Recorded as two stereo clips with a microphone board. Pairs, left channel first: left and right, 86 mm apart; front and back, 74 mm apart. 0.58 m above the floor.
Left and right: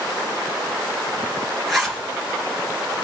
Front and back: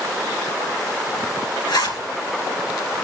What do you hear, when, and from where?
1.7 s a zipper: straight ahead, 3 m